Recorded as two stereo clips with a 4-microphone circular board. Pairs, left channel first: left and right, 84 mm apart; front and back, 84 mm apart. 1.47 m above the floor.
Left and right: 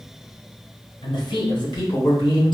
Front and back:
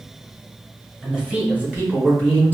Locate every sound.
1.0 s a man speaking: 95° left, 1.4 m; by 2.5 s 110° left, 2.5 m